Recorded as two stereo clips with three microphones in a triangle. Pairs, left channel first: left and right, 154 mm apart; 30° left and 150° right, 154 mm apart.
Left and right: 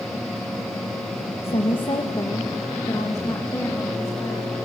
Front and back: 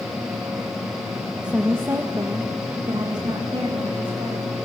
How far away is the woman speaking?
About 1.1 m.